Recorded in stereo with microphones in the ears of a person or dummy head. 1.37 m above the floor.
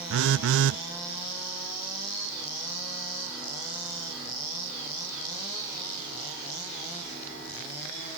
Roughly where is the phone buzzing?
Right.